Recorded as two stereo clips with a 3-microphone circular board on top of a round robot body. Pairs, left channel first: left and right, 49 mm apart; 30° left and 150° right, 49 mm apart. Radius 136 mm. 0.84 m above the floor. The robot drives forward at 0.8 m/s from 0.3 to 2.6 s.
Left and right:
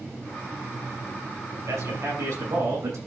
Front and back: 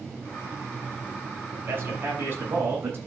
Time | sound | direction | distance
1.7 | a man speaking | 105° right | 7.5 m